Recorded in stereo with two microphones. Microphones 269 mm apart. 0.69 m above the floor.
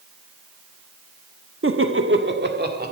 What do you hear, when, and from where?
1.6 s laughter: 50° right (ahead or behind), 1.1 m; by 2.9 s 35° right (ahead or behind), 2.5 m